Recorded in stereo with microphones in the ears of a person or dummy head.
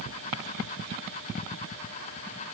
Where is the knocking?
No knocking in this recording.